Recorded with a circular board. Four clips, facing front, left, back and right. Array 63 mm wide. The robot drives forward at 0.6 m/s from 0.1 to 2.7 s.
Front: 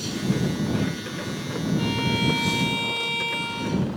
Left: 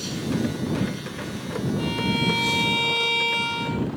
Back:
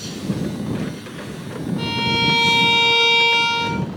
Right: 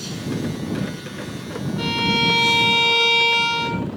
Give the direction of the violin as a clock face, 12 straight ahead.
4 o'clock.